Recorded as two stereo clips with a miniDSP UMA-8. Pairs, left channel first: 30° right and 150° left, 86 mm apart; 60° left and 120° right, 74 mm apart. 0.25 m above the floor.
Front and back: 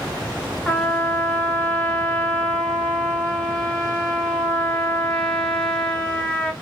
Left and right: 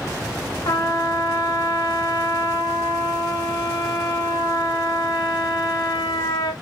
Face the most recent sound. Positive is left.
turn(degrees=45)